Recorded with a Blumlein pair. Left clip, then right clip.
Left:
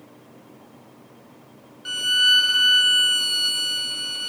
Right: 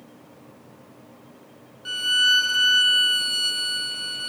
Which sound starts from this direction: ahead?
A violin, at 1.9 s.